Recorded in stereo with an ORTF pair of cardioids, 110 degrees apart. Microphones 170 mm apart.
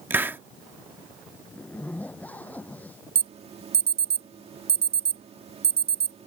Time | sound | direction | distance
0.1 | a hiss | 15° right | ?
1.5 | a zipper | 10° left | ?
3.1 | an alarm | 40° right | ?